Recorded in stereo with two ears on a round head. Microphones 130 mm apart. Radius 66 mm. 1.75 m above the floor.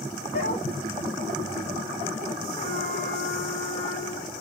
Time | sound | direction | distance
0.3 | a dog barking | 45° left (ahead or behind) | 4.5 m
2.6 | a trumpet | 45° left (ahead or behind) | 5 m